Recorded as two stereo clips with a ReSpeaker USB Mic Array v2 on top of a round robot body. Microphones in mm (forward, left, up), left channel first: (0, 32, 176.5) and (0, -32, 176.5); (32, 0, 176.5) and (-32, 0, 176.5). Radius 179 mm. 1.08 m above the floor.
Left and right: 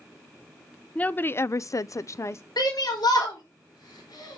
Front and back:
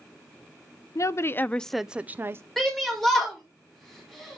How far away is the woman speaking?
About 0.6 m.